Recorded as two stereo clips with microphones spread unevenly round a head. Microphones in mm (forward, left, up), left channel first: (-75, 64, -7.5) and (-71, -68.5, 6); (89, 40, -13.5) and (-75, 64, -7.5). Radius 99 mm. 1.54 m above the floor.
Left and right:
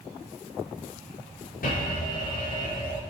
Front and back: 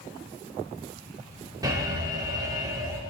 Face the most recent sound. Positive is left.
turn(degrees=105)